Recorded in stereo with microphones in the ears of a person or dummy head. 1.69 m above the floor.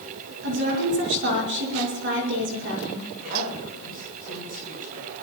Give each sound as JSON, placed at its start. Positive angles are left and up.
{"t": 0.4, "sound": "a woman speaking", "side_deg": -60, "distance_m": 6.0}
{"t": 3.2, "sound": "a woman speaking", "side_deg": -40, "distance_m": 6.0}